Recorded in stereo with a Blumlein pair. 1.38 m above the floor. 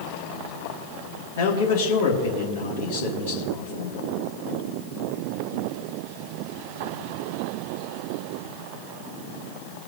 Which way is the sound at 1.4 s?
55° left.